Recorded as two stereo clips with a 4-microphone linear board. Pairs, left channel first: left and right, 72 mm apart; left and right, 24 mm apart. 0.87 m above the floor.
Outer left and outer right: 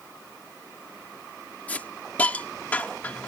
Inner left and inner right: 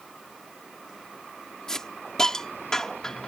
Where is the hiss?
25° left (ahead or behind).